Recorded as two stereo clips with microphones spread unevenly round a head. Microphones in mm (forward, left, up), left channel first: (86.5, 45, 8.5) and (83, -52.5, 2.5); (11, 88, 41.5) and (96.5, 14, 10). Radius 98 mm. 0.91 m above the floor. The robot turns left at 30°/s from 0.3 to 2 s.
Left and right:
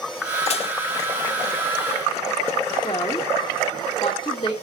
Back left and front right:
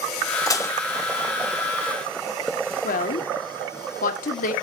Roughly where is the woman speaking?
Behind left.